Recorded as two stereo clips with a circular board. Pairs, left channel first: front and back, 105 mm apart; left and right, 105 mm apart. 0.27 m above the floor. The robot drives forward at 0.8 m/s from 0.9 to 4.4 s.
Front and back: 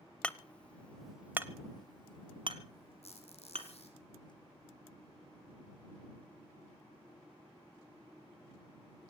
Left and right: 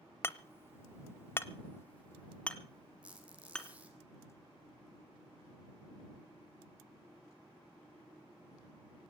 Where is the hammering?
65° left, 0.7 m; by 3.7 s 175° left, 2 m.